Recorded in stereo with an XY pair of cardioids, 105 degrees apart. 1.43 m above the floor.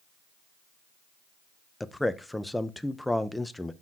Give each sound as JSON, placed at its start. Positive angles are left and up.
{"t": 1.8, "sound": "a man speaking", "azimuth_deg": 5, "distance_m": 0.8}